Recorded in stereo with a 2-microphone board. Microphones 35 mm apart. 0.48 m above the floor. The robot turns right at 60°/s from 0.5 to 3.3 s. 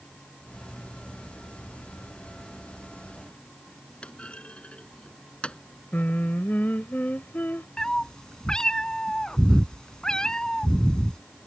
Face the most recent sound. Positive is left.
turn(degrees=20)  # may be behind; listen again after turning